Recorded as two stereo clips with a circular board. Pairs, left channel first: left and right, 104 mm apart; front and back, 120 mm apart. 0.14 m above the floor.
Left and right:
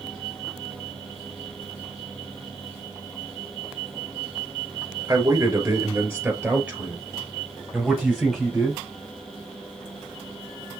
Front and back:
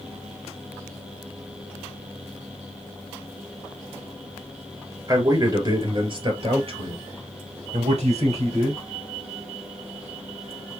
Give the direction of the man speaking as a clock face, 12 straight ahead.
4 o'clock.